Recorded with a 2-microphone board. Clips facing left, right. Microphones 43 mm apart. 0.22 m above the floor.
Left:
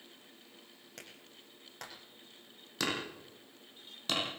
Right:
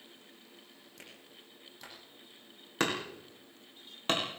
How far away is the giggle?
No giggle in this recording.